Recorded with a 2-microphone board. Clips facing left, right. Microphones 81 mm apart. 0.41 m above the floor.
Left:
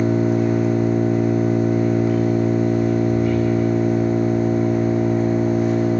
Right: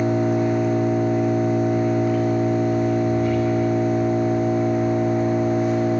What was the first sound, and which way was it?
An engine running, 5° left (ahead or behind).